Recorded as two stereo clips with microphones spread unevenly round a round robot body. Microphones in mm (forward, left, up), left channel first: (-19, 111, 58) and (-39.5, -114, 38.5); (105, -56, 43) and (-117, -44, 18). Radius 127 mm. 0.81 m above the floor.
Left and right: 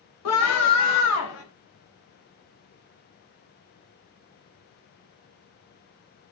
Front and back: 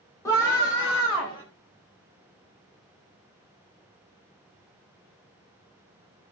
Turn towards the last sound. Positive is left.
turn(degrees=70)